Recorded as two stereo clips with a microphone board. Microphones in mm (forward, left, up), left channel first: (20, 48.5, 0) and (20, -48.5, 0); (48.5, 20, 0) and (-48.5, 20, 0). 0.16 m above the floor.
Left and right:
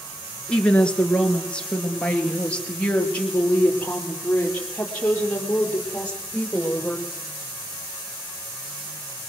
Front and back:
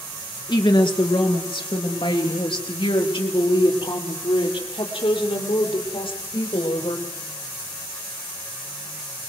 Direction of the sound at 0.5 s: 15° left.